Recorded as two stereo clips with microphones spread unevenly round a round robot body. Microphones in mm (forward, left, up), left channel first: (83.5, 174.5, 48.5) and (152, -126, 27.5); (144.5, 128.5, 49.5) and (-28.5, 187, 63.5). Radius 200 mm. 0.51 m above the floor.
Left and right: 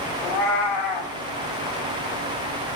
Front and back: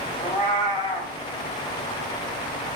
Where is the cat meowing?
40° left, 5 m.